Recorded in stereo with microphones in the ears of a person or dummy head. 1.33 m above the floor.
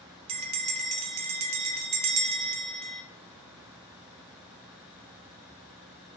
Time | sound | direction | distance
0.3 | a bell | 35° right (ahead or behind) | 0.5 m